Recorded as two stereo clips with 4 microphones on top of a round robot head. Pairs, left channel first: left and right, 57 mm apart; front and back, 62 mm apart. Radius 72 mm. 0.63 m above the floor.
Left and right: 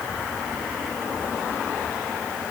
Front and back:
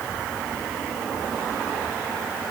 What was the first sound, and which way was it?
Only background noise.